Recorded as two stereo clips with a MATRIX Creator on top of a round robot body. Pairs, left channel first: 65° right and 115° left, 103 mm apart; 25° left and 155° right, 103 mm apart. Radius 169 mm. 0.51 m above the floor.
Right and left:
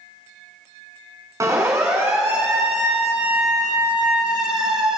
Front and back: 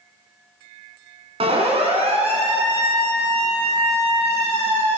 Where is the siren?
175° left, 5 m; by 5.0 s 165° right, 7 m.